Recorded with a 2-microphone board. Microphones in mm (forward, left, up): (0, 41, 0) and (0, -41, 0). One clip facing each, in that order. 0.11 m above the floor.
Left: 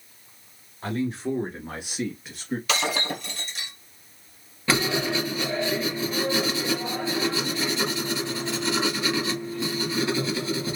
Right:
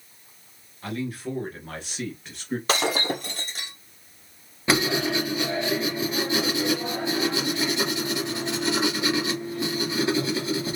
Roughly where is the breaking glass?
Right.